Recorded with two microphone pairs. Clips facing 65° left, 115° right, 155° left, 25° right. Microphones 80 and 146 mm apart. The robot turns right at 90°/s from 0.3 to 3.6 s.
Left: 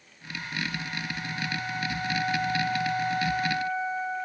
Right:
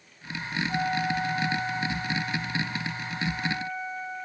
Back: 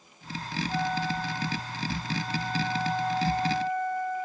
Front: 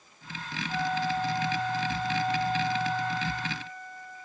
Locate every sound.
0.7 s a flute: 130° right; by 4.3 s 130° left